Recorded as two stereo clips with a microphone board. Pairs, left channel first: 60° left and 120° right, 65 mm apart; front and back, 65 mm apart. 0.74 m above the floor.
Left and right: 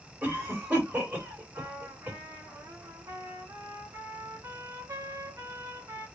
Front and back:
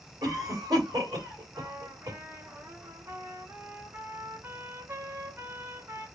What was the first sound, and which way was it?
A cough, 175° left.